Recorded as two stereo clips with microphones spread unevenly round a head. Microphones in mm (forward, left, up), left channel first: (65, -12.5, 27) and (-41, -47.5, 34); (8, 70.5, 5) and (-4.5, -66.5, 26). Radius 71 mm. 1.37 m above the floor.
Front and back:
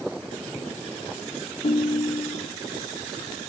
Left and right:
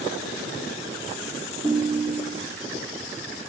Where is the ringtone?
25° right, 1.8 m.